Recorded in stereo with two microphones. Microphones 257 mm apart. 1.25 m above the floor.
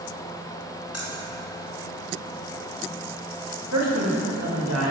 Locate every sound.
0.9 s keys jangling: 70° left (ahead or behind), 1.2 m
3.7 s a man speaking: 85° right, 1.8 m